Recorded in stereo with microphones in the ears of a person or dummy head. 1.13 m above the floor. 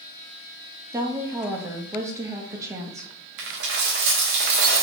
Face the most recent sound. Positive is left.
turn(degrees=-55)  # may be behind; listen again after turning